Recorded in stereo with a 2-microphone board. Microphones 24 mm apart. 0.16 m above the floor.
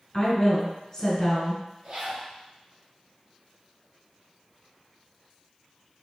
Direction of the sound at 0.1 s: 30° left (ahead or behind).